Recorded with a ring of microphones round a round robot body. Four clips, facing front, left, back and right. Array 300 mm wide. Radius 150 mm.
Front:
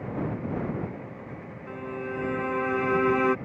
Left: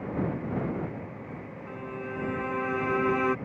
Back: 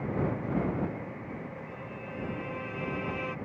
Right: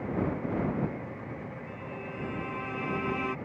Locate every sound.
1.7 s a violin: 20° left